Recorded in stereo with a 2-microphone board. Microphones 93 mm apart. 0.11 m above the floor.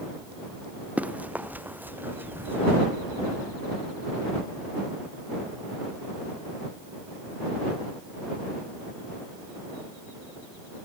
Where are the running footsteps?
15° right (ahead or behind); by 2.8 s 20° right (ahead or behind).